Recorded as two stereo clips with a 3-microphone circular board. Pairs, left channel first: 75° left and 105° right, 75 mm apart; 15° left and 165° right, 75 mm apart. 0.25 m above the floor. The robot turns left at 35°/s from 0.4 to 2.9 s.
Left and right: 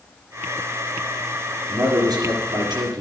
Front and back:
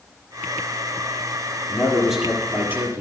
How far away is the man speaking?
About 4.5 m.